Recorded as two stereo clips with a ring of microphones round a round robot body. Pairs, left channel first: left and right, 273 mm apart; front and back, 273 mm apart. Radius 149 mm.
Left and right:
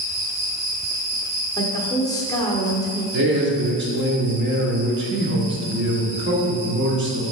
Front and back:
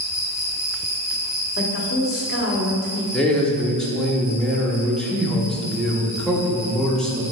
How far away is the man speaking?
About 1.1 m.